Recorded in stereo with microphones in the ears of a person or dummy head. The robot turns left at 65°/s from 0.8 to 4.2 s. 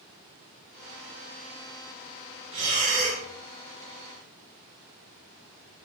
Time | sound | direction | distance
2.5 | breathing | 45° right | 1.6 m